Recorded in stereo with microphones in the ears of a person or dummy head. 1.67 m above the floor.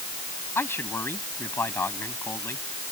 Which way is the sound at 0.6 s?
15° left (ahead or behind).